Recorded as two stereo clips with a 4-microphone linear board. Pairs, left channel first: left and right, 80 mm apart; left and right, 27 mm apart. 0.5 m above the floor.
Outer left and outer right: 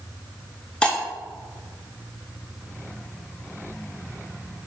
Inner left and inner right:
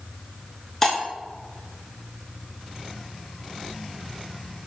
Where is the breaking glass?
15° left (ahead or behind), 3.5 m.